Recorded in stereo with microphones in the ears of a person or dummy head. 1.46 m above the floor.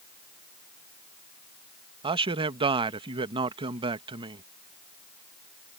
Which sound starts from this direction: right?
A man speaking, at 2.0 s.